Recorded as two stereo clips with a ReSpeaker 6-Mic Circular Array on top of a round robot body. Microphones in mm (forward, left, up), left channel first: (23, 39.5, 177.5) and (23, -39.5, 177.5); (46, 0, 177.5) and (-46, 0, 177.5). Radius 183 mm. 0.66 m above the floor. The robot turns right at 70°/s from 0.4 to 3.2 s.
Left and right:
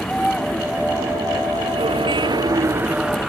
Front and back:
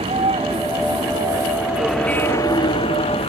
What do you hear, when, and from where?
0.0 s a vehicle: 175° left; by 3.3 s 5° right